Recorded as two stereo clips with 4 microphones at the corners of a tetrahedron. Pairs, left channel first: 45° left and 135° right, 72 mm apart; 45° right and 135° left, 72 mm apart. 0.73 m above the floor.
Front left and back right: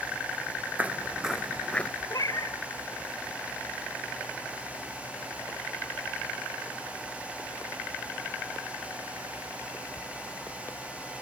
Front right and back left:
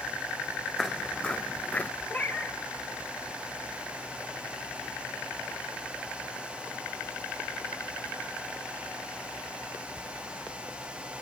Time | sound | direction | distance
0.8 | footsteps | 125° right | 0.7 m
2.1 | a cat meowing | 15° left | 1.4 m